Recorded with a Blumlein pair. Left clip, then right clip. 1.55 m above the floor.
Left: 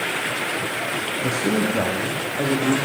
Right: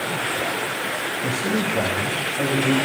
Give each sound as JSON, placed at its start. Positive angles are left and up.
{"t": 1.2, "sound": "a man speaking", "azimuth_deg": 10, "distance_m": 1.8}